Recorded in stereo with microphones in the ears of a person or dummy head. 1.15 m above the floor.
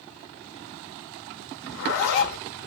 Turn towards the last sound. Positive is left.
turn(degrees=70)  # may be behind; listen again after turning